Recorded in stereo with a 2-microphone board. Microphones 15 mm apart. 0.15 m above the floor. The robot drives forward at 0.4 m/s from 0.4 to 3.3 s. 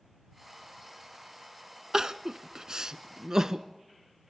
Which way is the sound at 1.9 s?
45° right (ahead or behind).